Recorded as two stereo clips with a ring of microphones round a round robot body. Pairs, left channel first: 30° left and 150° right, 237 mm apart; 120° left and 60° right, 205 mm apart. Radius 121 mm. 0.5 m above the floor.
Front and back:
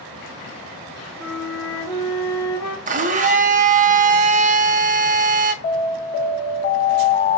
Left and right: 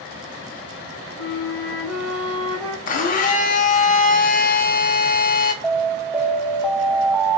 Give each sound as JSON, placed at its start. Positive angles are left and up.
{"t": 1.2, "sound": "a flute", "azimuth_deg": 25, "distance_m": 2.5}
{"t": 2.9, "sound": "a blender", "azimuth_deg": 160, "distance_m": 0.6}
{"t": 5.6, "sound": "an alarm", "azimuth_deg": 20, "distance_m": 0.6}